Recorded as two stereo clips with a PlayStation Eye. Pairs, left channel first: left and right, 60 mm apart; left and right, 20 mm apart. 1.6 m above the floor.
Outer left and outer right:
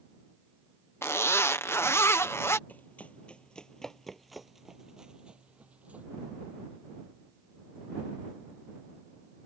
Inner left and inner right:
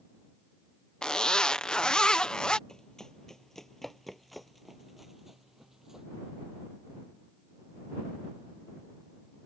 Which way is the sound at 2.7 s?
25° left (ahead or behind).